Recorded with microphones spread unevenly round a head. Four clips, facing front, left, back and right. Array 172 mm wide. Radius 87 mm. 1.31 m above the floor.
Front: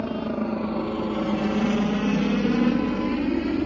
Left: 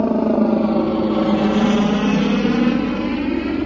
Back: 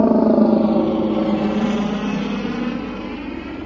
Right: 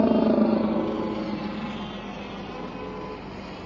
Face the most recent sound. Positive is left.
turn(degrees=65)